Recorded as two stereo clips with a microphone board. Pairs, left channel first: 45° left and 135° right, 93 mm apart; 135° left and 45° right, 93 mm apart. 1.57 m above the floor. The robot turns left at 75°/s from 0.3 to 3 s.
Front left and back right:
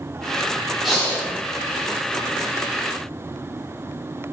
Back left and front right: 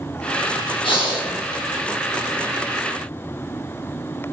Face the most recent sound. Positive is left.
turn(degrees=-25)